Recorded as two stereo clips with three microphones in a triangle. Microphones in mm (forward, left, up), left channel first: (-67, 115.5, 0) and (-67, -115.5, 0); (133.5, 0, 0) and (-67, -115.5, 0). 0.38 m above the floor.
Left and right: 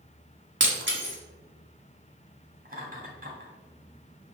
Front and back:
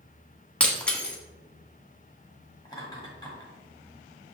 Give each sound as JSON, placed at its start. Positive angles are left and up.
{"t": 0.6, "sound": "breaking glass", "azimuth_deg": -55, "distance_m": 1.2}
{"t": 2.6, "sound": "laughter", "azimuth_deg": -45, "distance_m": 2.0}